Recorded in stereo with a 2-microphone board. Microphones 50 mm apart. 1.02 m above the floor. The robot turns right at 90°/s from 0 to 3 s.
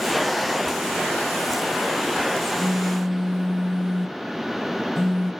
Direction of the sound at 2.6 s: 35° right.